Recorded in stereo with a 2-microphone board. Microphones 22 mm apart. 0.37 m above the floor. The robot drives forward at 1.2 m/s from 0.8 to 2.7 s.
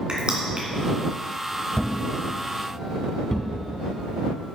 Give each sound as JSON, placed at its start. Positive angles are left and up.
{"t": 0.1, "sound": "crushing", "side_deg": -50, "distance_m": 2.0}
{"t": 1.8, "sound": "a thud", "side_deg": 70, "distance_m": 0.7}